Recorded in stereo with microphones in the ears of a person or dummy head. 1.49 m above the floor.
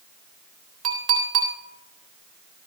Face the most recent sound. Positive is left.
turn(degrees=-35)  # may be behind; listen again after turning